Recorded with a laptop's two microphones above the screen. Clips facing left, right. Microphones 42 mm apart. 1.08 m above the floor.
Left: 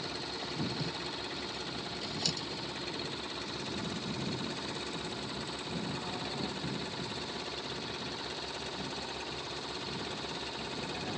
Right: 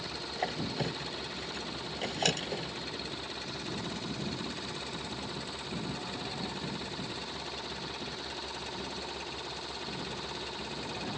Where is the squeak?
50° right (ahead or behind).